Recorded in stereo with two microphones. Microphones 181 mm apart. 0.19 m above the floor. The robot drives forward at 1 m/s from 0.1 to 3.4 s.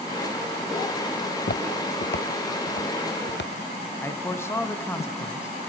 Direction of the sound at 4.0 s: 15° left (ahead or behind).